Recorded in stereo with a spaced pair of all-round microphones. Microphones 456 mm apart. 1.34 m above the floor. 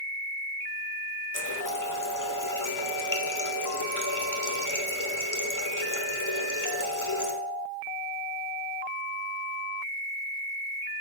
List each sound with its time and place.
1.3 s a running tap: 40° left (ahead or behind), 1.2 m